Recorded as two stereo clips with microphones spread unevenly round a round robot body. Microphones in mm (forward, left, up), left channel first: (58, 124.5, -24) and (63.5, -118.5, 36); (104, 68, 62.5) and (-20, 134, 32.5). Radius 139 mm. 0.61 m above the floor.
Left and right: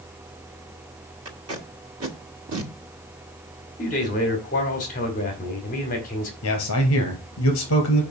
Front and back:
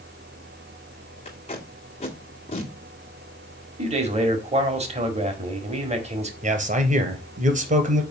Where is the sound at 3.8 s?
135° left, 1.8 m.